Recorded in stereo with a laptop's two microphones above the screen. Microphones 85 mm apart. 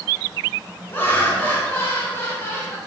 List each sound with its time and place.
0.9 s laughter: 25° left (ahead or behind), 5.5 m; by 2.8 s 30° left (ahead or behind), 4 m